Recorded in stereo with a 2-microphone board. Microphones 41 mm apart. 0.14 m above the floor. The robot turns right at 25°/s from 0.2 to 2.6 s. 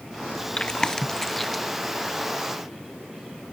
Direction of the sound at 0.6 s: 20° left (ahead or behind).